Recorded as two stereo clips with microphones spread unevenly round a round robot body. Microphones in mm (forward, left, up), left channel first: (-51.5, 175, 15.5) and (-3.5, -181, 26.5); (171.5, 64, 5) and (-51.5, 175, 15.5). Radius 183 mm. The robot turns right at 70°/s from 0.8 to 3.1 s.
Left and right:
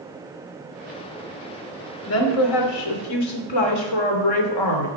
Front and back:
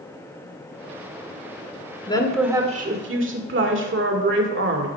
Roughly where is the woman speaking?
Ahead left.